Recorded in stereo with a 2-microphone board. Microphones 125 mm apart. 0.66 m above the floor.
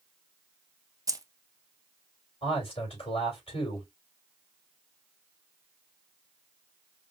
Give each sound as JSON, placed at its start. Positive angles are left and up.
{"t": 1.1, "sound": "keys jangling", "side_deg": -25, "distance_m": 0.6}
{"t": 2.4, "sound": "a man speaking", "side_deg": 50, "distance_m": 3.5}